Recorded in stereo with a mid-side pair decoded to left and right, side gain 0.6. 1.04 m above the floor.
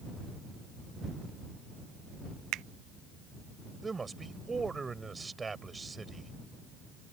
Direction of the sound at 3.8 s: 20° right.